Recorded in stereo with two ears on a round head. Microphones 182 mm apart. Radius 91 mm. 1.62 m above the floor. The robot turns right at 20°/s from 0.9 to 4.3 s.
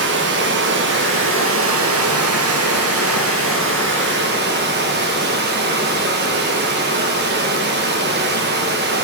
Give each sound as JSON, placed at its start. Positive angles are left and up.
{"t": 0.0, "sound": "running water", "azimuth_deg": -120, "distance_m": 1.6}